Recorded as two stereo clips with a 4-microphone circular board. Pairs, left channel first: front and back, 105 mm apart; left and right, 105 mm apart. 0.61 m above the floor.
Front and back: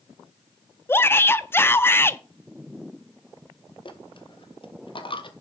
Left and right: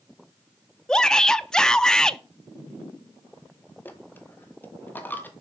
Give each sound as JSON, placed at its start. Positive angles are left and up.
{"t": 0.9, "sound": "a shout", "azimuth_deg": 15, "distance_m": 0.5}
{"t": 3.9, "sound": "a dropped coin", "azimuth_deg": 20, "distance_m": 1.0}